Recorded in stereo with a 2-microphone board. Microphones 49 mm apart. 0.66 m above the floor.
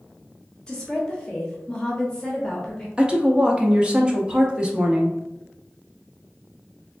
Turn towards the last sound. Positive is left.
turn(degrees=-20)  # may be behind; listen again after turning